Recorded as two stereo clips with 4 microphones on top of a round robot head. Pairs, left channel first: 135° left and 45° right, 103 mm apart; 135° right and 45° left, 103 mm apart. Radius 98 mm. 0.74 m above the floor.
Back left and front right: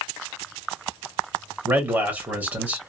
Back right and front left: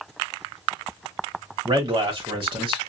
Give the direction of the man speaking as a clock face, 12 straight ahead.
11 o'clock.